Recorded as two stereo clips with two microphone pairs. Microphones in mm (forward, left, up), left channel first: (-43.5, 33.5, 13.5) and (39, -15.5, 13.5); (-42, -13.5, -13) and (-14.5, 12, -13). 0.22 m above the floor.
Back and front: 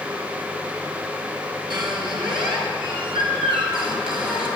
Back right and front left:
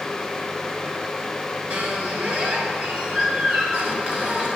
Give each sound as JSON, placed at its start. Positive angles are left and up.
{"t": 1.7, "sound": "a squeak", "azimuth_deg": -10, "distance_m": 1.5}